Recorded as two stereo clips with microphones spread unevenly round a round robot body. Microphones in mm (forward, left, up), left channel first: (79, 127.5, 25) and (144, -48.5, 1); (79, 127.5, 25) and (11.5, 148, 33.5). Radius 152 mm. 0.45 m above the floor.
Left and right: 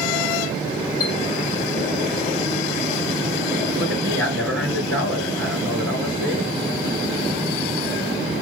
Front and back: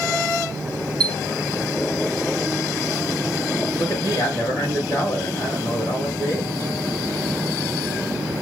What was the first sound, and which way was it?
A chime, 145° left.